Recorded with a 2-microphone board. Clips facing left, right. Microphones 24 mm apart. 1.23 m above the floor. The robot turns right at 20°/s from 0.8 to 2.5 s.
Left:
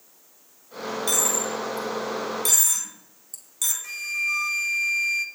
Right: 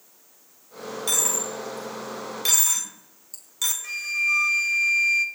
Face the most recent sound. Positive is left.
turn(degrees=-5)  # may be behind; listen again after turning